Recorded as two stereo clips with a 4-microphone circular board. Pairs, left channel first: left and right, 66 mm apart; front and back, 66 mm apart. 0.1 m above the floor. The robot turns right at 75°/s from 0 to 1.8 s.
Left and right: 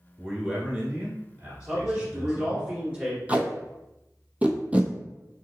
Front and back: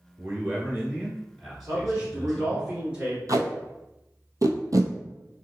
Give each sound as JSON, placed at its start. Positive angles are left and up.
{"t": 0.2, "sound": "a man speaking", "azimuth_deg": 160, "distance_m": 1.3}
{"t": 1.7, "sound": "a man speaking", "azimuth_deg": -150, "distance_m": 1.7}
{"t": 3.3, "sound": "tape being pulled", "azimuth_deg": -155, "distance_m": 0.6}